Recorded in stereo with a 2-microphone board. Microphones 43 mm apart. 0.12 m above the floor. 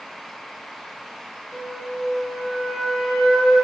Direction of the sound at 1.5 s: 30° right (ahead or behind).